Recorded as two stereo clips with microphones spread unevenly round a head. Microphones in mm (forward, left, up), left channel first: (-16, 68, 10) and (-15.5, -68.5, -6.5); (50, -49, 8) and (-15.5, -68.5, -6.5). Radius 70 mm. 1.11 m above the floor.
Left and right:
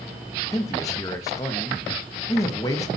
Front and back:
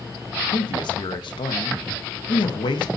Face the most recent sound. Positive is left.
turn(degrees=20)